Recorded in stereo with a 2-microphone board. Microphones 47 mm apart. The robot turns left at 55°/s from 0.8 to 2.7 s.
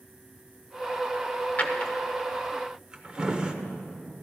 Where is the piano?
I don't hear a piano.